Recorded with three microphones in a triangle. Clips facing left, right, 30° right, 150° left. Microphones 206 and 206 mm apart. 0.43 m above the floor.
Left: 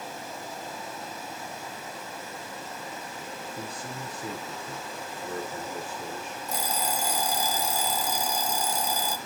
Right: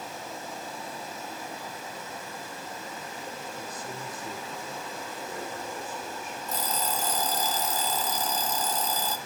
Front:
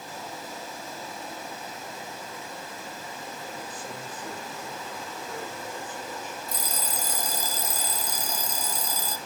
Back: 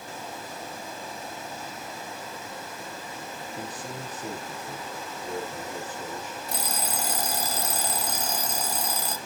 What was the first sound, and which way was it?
A man speaking, 110° left.